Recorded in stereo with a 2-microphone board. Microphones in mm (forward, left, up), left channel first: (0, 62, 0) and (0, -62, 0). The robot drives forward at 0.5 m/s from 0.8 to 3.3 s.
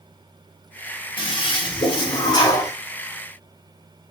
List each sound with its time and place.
1.2 s a toilet flushing: 40° left (ahead or behind), 0.8 m; by 2.7 s 30° left (ahead or behind), 1.0 m